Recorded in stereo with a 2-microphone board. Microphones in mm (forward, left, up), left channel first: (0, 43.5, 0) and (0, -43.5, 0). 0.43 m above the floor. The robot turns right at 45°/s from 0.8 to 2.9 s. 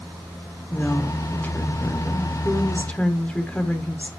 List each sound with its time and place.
0.7 s a woman speaking: 15° left (ahead or behind), 0.9 m